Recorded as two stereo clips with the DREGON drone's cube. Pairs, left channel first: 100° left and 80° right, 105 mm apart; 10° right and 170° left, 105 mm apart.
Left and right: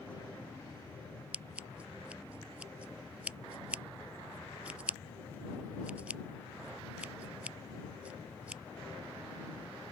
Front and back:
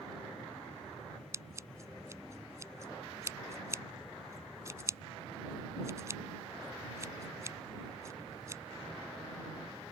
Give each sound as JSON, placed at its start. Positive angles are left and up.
{"t": 1.3, "sound": "scissors", "azimuth_deg": -150}